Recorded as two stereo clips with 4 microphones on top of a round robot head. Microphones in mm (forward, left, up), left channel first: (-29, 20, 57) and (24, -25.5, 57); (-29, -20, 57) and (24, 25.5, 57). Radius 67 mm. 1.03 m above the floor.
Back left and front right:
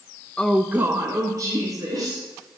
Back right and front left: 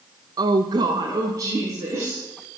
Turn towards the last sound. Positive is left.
turn(degrees=-10)